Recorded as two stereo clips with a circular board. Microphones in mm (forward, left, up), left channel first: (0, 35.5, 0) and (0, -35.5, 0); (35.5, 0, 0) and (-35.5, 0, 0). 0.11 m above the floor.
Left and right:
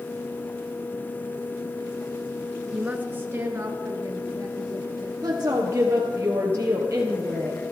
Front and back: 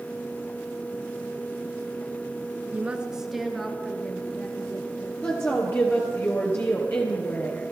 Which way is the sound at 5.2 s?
50° right.